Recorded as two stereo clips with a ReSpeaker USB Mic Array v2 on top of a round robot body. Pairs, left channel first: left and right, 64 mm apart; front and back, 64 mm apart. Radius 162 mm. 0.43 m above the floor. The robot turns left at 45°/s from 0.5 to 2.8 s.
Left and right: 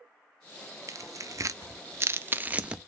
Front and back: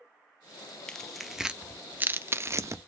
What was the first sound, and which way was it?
Tearing paper, 80° right.